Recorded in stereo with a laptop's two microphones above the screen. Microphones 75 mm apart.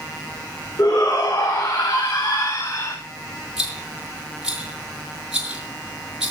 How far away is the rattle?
About 6 m.